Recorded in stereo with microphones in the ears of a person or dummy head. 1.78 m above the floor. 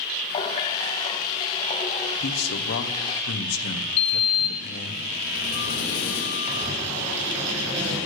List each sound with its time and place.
0.3 s a running tap: 20° left (ahead or behind), 1.0 m
2.2 s a man speaking: 60° left (ahead or behind), 1.2 m
4.0 s a sliding door: 55° left (ahead or behind), 2.5 m
6.5 s writing: 35° right (ahead or behind), 5 m